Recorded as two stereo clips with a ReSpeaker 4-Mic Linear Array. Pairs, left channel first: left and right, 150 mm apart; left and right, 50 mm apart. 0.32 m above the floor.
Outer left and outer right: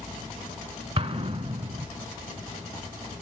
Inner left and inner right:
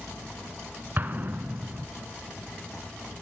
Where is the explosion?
40° right (ahead or behind), 0.9 m.